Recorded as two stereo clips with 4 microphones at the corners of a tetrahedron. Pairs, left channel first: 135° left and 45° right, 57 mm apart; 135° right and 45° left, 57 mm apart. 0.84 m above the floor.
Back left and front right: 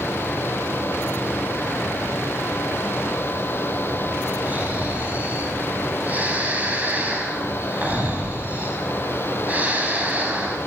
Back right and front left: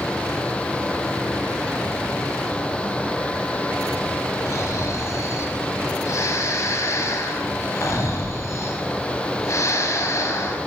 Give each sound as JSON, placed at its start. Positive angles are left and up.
{"t": 4.5, "sound": "snoring", "azimuth_deg": -105, "distance_m": 5.0}